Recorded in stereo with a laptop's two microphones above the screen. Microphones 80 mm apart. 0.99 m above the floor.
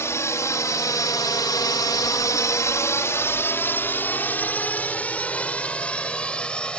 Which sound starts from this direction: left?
A drone, at 0.0 s.